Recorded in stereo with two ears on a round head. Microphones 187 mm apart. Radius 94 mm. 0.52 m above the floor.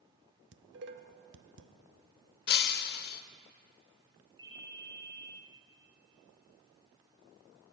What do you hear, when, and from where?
0.5 s dishes clattering: 55° right (ahead or behind), 0.7 m
2.5 s breaking glass: 50° left (ahead or behind), 0.6 m
4.4 s a ringtone: 20° right (ahead or behind), 3.5 m